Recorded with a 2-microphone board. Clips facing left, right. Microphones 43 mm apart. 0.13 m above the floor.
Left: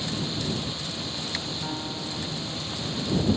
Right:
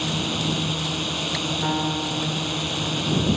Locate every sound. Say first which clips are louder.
0.0 s a drone: right 5 dB; 65° right (ahead or behind)
1.6 s a piano: right 9 dB; 35° right (ahead or behind)